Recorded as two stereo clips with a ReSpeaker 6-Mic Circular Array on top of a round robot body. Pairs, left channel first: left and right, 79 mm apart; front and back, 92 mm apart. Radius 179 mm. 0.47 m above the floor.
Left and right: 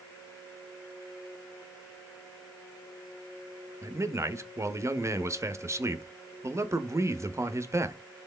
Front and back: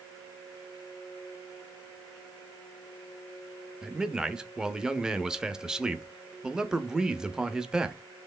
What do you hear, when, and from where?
3.8 s a man speaking: 100° right, 0.8 m